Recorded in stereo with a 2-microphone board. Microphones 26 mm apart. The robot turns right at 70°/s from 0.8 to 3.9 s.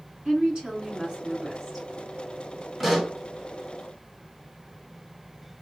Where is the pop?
5° right (ahead or behind), 1.3 m; by 3.2 s 20° left (ahead or behind), 1.3 m.